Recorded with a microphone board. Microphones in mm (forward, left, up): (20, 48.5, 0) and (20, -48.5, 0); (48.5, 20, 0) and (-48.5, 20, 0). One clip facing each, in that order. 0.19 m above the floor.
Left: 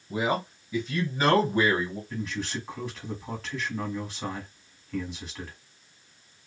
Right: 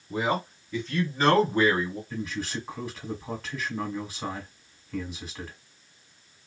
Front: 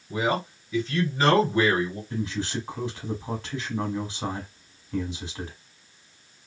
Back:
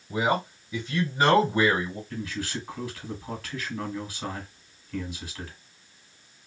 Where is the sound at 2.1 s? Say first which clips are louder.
Even, front 4 dB; 5° right, 1.1 m.